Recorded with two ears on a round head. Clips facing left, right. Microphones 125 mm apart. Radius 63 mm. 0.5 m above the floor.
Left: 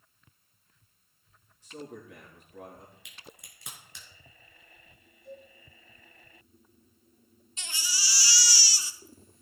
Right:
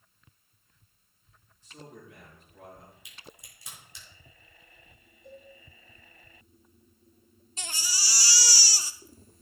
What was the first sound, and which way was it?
A man speaking, 60° left (ahead or behind).